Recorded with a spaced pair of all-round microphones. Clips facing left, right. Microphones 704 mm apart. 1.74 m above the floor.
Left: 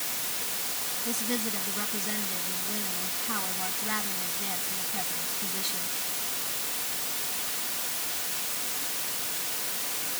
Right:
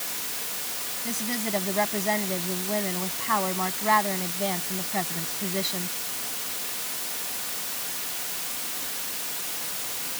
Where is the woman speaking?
85° right.